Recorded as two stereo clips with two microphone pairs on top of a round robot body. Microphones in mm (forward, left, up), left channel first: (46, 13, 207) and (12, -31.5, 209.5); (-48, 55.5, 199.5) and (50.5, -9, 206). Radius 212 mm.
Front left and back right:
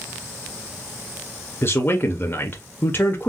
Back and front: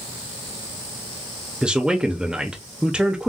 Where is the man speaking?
50° left, 1.0 m.